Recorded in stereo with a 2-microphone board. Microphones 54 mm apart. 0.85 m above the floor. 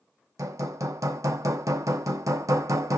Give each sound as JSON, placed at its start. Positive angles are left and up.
{"t": 0.4, "sound": "hammering", "side_deg": -75, "distance_m": 0.5}